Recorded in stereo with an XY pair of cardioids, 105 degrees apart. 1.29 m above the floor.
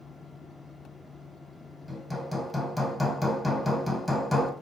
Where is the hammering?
5° left, 1.1 m.